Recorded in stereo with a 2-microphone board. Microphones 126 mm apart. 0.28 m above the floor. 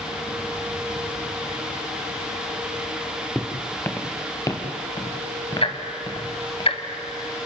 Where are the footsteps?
10° left (ahead or behind), 2.0 m; by 6.6 s 35° left (ahead or behind), 4 m.